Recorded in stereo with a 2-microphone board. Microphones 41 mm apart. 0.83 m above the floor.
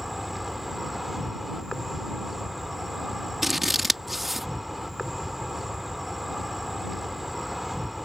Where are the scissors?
5° right (ahead or behind).